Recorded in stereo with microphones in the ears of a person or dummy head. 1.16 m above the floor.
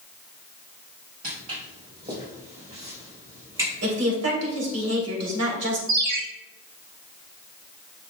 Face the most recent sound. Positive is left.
turn(degrees=-80)